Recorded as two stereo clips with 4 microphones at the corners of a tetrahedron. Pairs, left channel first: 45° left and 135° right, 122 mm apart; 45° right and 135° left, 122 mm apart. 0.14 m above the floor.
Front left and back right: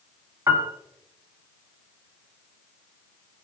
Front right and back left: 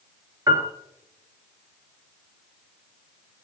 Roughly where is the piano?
Behind.